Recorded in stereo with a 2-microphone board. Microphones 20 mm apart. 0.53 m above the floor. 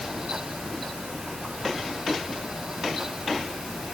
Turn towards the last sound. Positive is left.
No sound to turn to.